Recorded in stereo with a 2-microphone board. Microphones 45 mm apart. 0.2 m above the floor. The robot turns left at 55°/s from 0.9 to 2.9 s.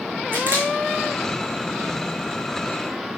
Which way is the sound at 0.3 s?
40° right (ahead or behind).